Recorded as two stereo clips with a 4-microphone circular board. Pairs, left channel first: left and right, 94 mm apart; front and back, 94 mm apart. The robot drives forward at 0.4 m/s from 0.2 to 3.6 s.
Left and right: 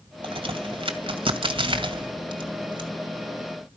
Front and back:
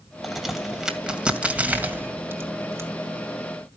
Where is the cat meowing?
No cat meowing in this recording.